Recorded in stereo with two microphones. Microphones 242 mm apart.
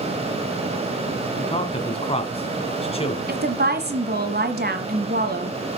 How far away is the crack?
No crack in this recording.